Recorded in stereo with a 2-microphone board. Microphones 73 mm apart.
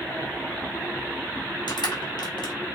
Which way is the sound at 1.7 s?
80° left.